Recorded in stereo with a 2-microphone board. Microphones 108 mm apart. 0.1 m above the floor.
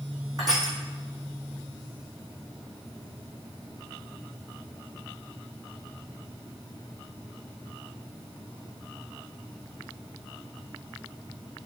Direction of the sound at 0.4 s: 40° right (ahead or behind).